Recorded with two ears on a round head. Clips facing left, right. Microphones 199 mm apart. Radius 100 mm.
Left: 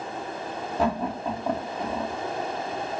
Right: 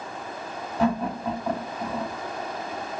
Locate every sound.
0.8 s laughter: 30° left (ahead or behind), 2.5 m